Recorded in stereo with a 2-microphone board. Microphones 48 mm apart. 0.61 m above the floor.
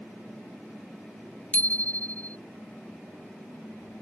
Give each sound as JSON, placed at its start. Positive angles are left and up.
{"t": 1.5, "sound": "a bicycle bell", "side_deg": 30}